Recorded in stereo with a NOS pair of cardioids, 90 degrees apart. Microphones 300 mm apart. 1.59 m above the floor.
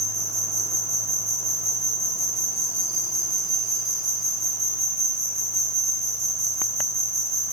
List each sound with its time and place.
0.0 s an insect: 20° right, 1.2 m